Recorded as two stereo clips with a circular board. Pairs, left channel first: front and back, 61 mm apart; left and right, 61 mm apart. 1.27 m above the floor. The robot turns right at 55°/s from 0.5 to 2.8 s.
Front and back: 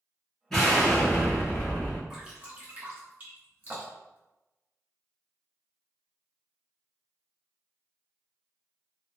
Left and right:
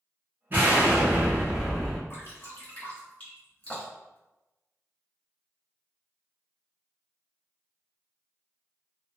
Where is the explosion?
80° right, 0.9 m; by 2.0 s 5° left, 0.9 m.